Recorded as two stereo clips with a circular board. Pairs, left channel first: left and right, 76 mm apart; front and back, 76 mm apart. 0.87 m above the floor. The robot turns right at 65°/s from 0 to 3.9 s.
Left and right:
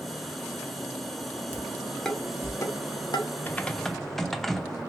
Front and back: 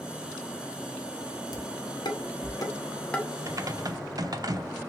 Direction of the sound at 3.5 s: 145° left.